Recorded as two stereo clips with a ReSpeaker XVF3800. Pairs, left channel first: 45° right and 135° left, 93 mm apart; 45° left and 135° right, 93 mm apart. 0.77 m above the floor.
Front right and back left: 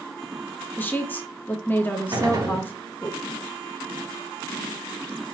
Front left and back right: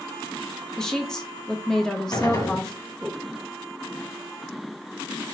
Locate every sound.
0.8 s a woman speaking: 25° right, 0.7 m
2.1 s a gunshot: 90° left, 1.2 m